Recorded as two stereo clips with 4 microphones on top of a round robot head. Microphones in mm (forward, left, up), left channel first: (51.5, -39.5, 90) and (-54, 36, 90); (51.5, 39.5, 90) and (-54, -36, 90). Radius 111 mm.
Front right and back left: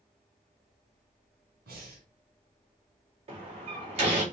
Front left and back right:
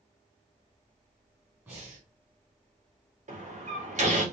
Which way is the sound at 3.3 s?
170° right.